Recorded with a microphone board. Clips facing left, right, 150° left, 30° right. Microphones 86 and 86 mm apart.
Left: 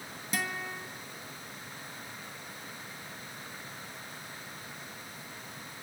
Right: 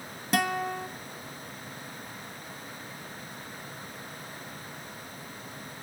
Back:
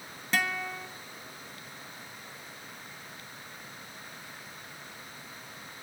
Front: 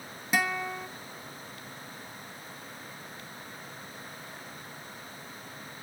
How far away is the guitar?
About 1.3 m.